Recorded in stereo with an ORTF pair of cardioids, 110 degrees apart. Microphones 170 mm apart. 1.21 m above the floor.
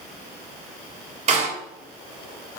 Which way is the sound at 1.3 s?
40° right.